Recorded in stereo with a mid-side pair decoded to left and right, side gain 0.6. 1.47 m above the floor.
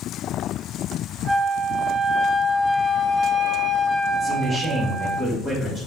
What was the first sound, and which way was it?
A flute, 25° right.